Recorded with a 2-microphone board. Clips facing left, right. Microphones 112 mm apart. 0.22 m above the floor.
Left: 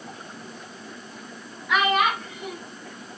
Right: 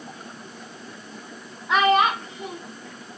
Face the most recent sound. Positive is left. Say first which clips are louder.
# right 3 dB
turn(degrees=-30)  # may be behind; listen again after turning